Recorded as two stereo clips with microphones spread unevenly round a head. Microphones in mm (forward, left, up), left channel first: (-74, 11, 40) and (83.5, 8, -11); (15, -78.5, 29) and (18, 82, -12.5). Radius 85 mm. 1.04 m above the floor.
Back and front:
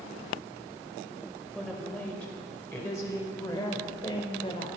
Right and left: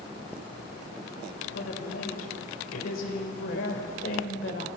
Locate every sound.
1.5 s a woman speaking: 95° right, 5.5 m; by 4.7 s 120° right, 5 m